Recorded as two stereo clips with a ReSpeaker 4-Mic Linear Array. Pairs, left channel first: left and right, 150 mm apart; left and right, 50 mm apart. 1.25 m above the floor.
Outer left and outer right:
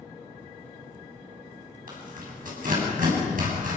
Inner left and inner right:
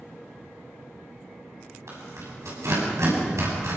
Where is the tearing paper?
70° right (ahead or behind), 7 m.